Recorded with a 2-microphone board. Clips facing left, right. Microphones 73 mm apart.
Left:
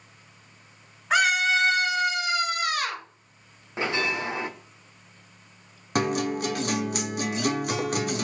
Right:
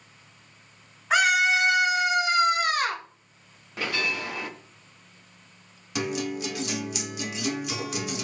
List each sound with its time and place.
1.1 s a scream: centre (ahead or behind), 1.5 m; by 3.0 s 40° right (ahead or behind), 1.7 m
3.8 s a bell: 25° left (ahead or behind), 0.5 m
6.0 s a guitar: 50° left (ahead or behind), 0.5 m